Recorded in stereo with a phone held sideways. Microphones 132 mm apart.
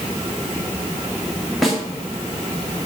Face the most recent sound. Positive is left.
turn(degrees=0)  # may be behind; listen again after turning